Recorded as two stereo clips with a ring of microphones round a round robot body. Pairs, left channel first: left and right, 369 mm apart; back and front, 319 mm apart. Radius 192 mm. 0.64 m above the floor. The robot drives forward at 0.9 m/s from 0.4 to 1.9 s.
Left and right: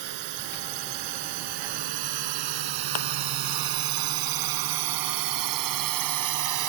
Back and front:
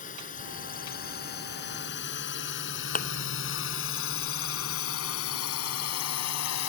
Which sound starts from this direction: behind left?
A thud, at 3.0 s.